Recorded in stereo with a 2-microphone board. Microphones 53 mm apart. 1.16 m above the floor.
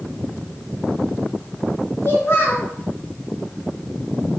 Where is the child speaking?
45° left (ahead or behind), 1.2 m.